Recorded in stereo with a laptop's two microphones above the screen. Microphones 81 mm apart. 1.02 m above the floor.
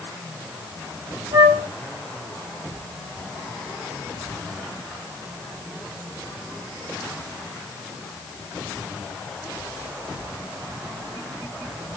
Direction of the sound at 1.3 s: 75° right (ahead or behind).